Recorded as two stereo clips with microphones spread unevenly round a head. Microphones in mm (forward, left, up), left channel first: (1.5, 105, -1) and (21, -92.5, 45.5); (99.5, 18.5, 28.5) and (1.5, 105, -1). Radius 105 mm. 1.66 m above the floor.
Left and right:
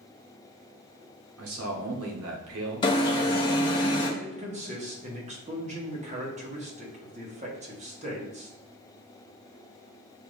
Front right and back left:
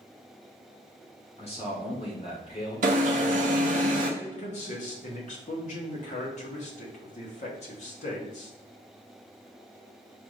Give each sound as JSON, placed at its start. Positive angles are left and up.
{"t": 1.4, "sound": "a man speaking", "azimuth_deg": -105, "distance_m": 1.1}
{"t": 2.8, "sound": "an alarm", "azimuth_deg": 170, "distance_m": 0.6}
{"t": 4.2, "sound": "a man speaking", "azimuth_deg": -40, "distance_m": 1.1}